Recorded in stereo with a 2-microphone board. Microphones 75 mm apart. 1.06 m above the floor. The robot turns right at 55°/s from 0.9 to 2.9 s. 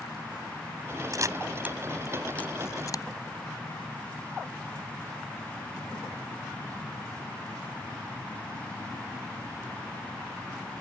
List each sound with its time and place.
1.1 s a camera shutter: 50° right (ahead or behind); by 3.0 s 50° left (ahead or behind)